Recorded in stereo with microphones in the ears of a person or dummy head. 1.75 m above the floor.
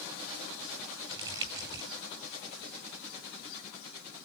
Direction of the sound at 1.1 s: 20° right (ahead or behind).